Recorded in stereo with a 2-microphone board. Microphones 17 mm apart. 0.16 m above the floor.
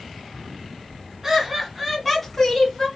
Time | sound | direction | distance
1.2 | laughter | 25° right (ahead or behind) | 1.8 m